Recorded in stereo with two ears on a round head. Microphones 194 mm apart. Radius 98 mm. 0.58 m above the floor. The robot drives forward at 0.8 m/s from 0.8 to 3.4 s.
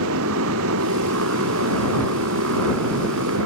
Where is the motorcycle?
80° right; by 3.5 s 75° right (ahead or behind).